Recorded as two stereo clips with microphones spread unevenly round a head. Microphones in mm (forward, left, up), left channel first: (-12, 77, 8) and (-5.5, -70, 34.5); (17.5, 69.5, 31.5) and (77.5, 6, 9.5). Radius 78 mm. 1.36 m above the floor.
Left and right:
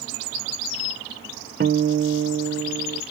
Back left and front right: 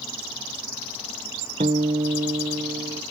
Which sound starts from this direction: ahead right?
A guitar, at 1.6 s.